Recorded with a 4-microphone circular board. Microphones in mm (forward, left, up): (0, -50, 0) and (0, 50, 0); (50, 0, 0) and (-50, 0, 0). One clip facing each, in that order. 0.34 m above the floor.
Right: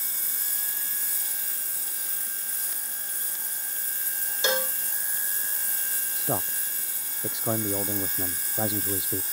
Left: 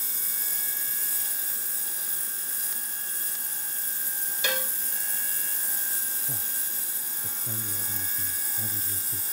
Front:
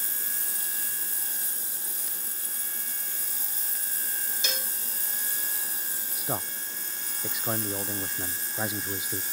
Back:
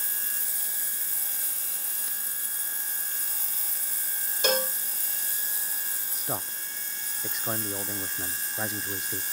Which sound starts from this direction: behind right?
A cowbell, at 4.4 s.